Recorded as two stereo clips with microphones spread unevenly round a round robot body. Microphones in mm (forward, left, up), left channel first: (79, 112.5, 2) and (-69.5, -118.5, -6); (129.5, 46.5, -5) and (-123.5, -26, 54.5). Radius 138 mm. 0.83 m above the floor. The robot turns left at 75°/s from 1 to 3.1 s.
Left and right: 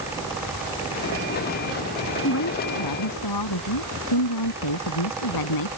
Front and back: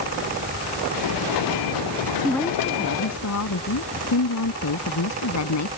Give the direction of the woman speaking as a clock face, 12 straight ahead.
8 o'clock.